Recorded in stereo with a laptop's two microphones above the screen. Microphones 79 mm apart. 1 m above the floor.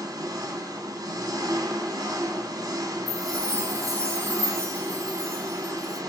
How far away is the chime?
About 1.7 m.